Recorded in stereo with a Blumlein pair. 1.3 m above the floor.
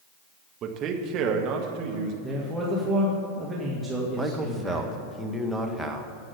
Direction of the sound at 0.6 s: 30° right.